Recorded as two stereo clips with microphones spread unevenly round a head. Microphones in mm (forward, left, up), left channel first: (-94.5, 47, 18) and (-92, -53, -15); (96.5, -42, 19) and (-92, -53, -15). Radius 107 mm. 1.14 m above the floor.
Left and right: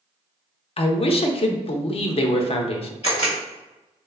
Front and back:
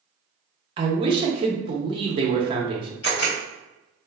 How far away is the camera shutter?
About 1.4 m.